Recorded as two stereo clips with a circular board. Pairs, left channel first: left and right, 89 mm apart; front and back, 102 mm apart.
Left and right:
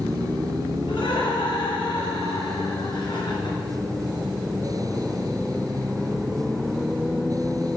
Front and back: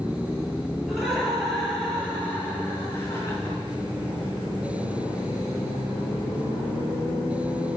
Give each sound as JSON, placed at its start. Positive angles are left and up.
{"t": 0.9, "sound": "laughter", "azimuth_deg": 90, "distance_m": 5.0}